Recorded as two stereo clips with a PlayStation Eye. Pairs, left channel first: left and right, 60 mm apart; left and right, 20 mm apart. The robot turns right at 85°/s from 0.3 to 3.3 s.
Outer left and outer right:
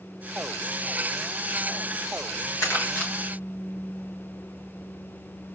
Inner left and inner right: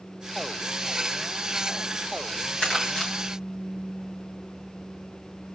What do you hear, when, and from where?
2.6 s crumpling: 60° left (ahead or behind), 3 m; by 3.1 s 20° left (ahead or behind), 3 m